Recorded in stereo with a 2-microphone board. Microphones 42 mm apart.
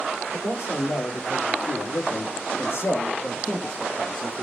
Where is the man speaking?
70° left (ahead or behind), 2.5 m; by 4.4 s centre (ahead or behind), 1.5 m.